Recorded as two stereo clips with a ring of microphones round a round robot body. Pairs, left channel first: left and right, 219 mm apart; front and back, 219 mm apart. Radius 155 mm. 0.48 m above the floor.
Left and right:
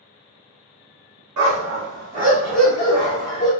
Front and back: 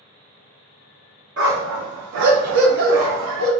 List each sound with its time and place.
1.4 s a dog barking: 120° right, 0.7 m; by 3.5 s 155° left, 1.2 m